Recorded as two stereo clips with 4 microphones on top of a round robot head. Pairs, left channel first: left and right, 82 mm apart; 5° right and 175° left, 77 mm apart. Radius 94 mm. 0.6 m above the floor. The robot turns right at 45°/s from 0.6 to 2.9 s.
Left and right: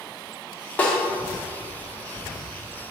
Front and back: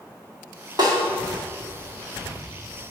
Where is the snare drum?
160° left, 1.7 m; by 1.0 s 165° left, 1.7 m.